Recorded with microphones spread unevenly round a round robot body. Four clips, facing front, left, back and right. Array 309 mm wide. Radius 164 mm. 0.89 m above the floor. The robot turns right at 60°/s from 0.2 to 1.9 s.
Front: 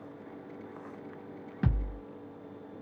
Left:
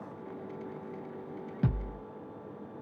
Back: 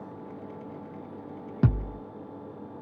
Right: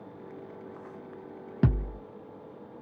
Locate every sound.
1.6 s a thud: 135° right, 1.2 m; by 2.0 s 120° right, 1.2 m